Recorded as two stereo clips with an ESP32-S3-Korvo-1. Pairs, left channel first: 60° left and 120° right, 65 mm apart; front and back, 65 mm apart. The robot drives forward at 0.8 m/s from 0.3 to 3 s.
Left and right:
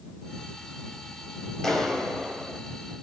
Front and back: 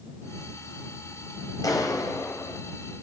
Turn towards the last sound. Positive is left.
turn(degrees=-25)